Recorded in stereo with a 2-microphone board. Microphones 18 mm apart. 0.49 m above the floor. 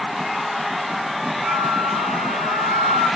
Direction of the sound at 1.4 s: 25° right (ahead or behind).